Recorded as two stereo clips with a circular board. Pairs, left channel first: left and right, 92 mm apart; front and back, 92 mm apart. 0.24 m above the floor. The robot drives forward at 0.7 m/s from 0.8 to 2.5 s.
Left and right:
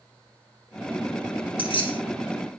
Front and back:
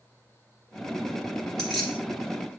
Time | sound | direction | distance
1.6 | keys jangling | 85° left | 2.5 m